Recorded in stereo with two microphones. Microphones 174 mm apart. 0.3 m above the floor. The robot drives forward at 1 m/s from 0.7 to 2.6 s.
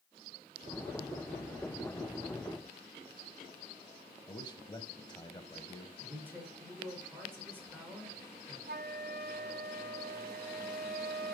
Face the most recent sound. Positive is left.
turn(degrees=-65)  # may be behind; listen again after turning